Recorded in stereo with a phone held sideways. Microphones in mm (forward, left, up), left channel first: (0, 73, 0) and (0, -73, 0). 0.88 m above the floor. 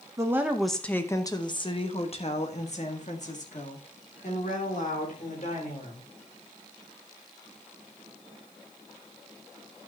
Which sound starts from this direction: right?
A woman speaking, at 0.2 s.